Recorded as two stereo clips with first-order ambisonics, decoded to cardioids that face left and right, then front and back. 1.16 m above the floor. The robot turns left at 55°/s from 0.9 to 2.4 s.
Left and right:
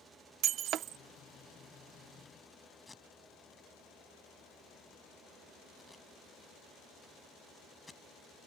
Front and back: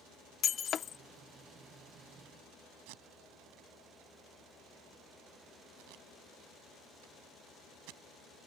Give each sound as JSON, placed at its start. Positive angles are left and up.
{"t": 0.4, "sound": "breaking glass", "azimuth_deg": -55}
{"t": 2.9, "sound": "tape being pulled", "azimuth_deg": 170}